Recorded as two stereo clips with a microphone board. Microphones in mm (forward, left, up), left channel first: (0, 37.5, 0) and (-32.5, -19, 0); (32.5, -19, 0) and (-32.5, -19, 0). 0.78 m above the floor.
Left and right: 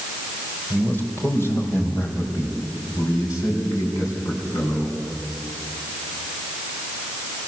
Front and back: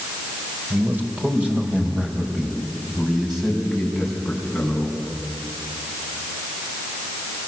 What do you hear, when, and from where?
0.7 s a man speaking: 125° left, 3.5 m; by 5.0 s 85° left, 8 m